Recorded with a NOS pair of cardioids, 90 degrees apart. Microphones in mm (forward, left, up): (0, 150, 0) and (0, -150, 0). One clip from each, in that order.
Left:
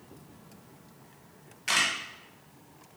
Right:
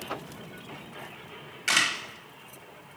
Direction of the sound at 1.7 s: 20° right.